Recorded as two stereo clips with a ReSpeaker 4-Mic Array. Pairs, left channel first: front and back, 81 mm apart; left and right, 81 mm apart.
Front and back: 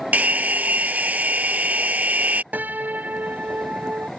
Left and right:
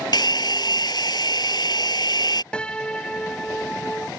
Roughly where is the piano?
Behind left.